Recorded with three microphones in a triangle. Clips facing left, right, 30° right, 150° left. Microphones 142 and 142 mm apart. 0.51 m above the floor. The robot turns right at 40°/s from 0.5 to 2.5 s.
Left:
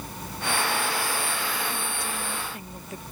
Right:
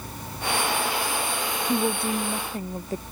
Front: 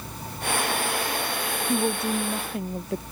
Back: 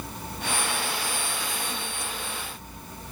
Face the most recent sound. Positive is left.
turn(degrees=-35)